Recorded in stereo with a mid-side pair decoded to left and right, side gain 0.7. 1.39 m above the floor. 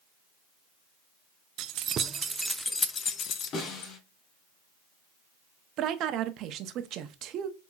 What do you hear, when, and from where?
1.6 s keys jangling: 55° right, 0.7 m; by 3.9 s 55° left, 1.0 m
3.5 s a snare drum: 50° left, 2.5 m
5.8 s a woman speaking: 50° right, 0.8 m